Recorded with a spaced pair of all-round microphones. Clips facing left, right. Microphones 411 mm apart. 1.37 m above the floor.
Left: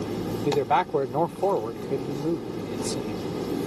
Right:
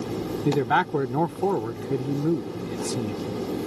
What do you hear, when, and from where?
0.5 s a man speaking: 30° right (ahead or behind)